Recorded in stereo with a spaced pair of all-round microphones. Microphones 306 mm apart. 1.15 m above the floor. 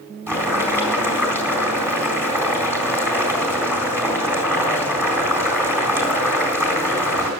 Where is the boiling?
5° right (ahead or behind), 4 m.